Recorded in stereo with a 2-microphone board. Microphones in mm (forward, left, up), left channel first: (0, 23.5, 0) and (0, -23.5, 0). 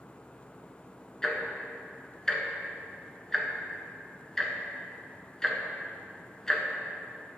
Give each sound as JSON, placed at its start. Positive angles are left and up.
{"t": 1.2, "sound": "ticking", "side_deg": 10, "distance_m": 1.0}